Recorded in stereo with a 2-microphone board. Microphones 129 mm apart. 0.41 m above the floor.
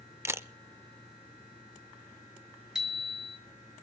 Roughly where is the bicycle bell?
Centre.